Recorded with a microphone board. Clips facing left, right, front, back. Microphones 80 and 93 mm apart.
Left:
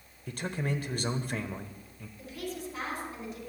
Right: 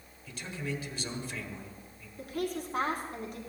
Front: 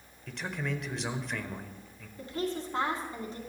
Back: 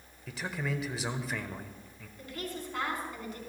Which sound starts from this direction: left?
A man speaking, at 0.3 s.